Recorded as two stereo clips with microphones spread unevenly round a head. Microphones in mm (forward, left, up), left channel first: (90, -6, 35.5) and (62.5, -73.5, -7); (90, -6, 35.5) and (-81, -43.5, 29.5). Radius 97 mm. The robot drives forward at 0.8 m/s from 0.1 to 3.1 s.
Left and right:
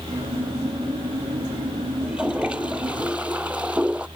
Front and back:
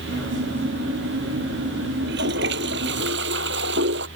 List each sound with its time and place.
2.0 s a toilet flushing: 155° left; by 4.1 s 160° left